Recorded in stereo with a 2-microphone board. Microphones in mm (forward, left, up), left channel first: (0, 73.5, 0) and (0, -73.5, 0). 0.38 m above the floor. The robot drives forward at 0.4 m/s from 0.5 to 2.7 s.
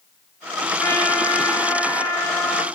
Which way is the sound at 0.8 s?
15° left (ahead or behind).